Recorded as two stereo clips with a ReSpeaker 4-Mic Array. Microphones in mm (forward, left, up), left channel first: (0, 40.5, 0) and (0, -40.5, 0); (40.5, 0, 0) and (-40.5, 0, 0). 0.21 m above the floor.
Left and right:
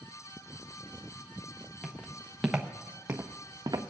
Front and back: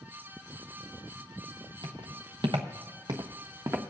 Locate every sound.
1.8 s footsteps: 165° left, 1.6 m; by 3.8 s 125° right, 1.1 m